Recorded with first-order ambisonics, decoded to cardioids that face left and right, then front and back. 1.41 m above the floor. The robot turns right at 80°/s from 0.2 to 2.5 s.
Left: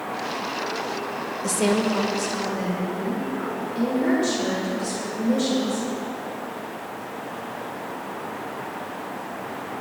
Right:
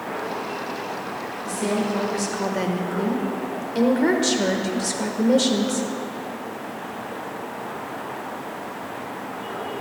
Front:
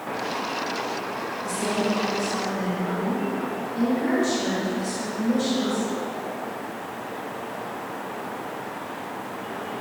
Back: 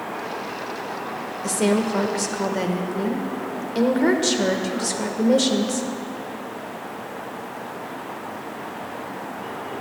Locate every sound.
1.4 s a woman speaking: 130° left, 1.4 m; by 5.9 s 145° right, 1.4 m